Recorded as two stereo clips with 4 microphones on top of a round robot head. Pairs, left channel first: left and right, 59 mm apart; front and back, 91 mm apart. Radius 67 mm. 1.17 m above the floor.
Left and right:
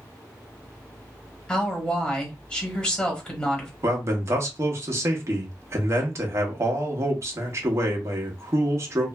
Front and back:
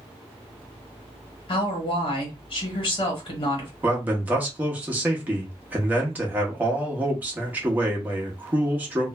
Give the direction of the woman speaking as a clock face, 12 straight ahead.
11 o'clock.